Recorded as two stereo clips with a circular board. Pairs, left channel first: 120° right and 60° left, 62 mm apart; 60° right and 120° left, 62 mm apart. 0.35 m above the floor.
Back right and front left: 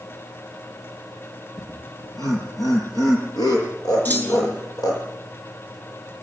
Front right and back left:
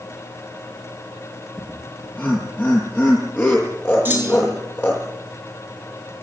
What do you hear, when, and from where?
1.6 s laughter: 120° right, 9 m; by 5.0 s 115° right, 10.5 m
4.0 s a clunk: straight behind, 6 m